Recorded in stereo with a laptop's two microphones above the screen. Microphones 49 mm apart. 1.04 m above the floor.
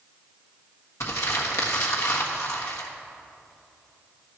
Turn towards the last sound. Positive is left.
turn(degrees=70)  # may be behind; listen again after turning